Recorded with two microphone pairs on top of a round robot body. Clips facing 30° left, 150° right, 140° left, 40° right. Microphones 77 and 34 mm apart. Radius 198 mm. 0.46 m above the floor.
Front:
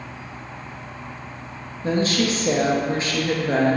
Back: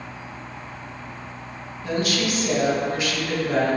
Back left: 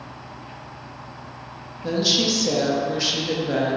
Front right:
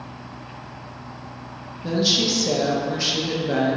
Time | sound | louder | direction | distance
1.8 | a woman speaking | front 3 dB, even | 80° left | 0.9 m